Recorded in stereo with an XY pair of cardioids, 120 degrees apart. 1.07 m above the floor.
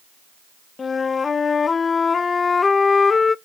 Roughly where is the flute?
Ahead left.